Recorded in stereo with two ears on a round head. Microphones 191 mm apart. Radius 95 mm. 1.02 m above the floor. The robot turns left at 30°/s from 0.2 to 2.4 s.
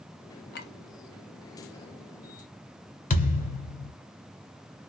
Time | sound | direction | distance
0.5 | a clink | 50° left (ahead or behind) | 0.6 m
3.1 | a thud | 40° left (ahead or behind) | 1.5 m